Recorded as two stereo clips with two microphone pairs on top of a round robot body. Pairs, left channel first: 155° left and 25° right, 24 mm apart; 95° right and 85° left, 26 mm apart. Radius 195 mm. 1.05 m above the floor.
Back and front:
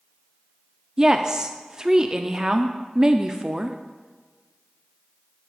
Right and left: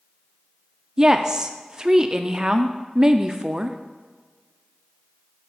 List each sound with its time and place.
1.0 s a woman speaking: 25° left, 0.6 m